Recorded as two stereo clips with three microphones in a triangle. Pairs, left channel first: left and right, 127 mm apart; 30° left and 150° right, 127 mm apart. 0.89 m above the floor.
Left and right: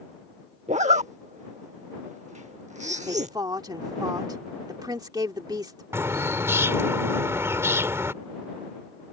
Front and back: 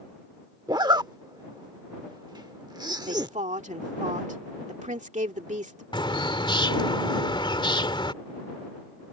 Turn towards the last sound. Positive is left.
turn(degrees=-20)